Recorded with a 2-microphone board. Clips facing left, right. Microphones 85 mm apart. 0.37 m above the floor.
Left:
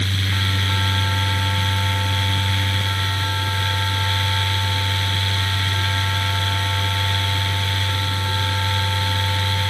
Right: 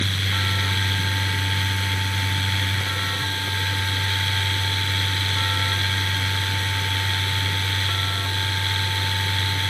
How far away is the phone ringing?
I don't hear a phone ringing.